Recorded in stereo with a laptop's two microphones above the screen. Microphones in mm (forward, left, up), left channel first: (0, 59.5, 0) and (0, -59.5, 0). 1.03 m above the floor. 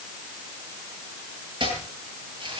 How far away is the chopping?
About 8.5 m.